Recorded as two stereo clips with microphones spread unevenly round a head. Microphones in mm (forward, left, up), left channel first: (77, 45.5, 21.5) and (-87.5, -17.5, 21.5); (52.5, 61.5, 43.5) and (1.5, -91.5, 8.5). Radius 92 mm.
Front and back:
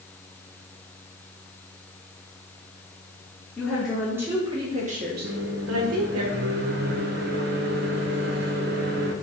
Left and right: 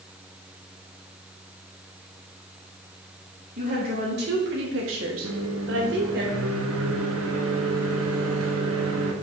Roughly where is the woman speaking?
Ahead right.